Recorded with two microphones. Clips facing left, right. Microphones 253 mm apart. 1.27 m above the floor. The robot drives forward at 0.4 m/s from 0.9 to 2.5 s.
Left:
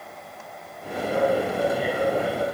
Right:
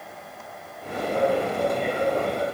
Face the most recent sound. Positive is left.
No sound to turn to.